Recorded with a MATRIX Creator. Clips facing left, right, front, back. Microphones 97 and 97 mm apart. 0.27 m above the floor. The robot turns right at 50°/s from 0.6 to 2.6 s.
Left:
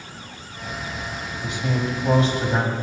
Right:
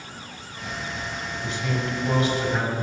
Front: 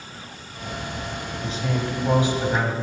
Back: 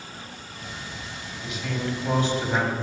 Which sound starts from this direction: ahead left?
A man speaking, at 1.4 s.